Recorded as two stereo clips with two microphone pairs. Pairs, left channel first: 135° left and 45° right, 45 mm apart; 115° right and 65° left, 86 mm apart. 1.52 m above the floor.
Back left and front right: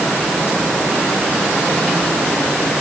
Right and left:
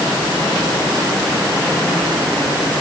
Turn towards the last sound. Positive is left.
No sound to turn to.